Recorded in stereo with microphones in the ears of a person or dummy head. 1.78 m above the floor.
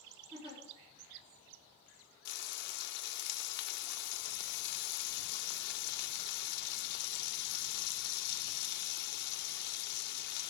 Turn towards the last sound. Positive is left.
turn(degrees=60)  # may be behind; listen again after turning